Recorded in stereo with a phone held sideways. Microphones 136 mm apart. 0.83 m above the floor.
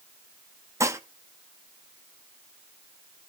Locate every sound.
0.8 s dishes clattering: 20° right (ahead or behind), 0.7 m